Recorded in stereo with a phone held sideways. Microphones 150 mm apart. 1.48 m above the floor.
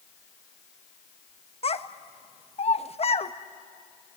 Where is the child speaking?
40° left (ahead or behind), 1.0 m.